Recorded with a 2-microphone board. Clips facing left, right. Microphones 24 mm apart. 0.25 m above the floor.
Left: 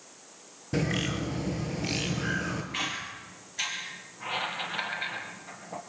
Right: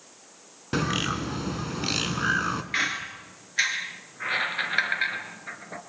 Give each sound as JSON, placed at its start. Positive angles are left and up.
{"t": 0.7, "sound": "a bird", "side_deg": -60, "distance_m": 2.5}
{"t": 2.7, "sound": "a squeak", "side_deg": -55, "distance_m": 2.5}